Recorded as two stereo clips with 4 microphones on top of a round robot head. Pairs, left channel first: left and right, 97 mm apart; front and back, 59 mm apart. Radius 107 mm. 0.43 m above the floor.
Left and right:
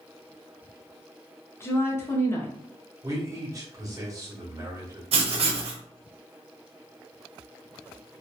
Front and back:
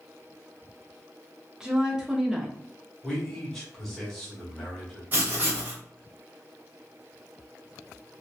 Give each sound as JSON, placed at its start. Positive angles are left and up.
{"t": 1.6, "sound": "a woman speaking", "azimuth_deg": 115, "distance_m": 0.8}
{"t": 3.0, "sound": "a man speaking", "azimuth_deg": -85, "distance_m": 1.5}
{"t": 5.1, "sound": "writing", "azimuth_deg": -115, "distance_m": 0.6}